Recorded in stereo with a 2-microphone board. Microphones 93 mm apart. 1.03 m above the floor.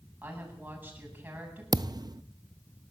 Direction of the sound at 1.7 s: 45° right (ahead or behind).